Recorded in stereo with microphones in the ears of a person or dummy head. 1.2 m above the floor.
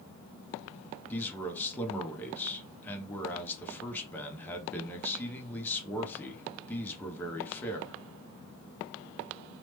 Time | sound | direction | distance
1.1 | a man speaking | 15° left (ahead or behind) | 0.6 m